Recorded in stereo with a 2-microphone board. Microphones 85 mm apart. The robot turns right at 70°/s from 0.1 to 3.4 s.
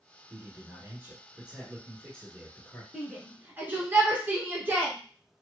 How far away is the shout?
About 1.2 m.